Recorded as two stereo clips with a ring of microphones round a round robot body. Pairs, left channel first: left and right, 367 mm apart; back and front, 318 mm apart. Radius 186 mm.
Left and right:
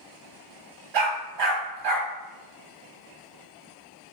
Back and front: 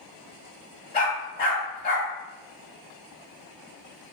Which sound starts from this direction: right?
A dog barking, at 0.9 s.